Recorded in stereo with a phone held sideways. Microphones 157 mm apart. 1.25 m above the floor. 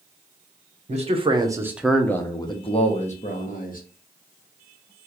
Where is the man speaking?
45° right (ahead or behind), 0.7 m; by 3.8 s 60° left (ahead or behind), 1.1 m.